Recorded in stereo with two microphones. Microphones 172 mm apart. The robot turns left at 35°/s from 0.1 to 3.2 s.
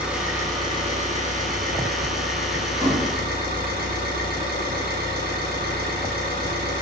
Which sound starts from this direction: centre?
A thud, at 2.8 s.